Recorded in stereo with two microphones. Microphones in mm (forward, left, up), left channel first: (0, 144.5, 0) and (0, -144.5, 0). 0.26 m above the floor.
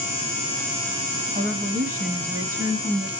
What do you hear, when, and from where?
1.4 s a woman speaking: 25° right (ahead or behind), 1.6 m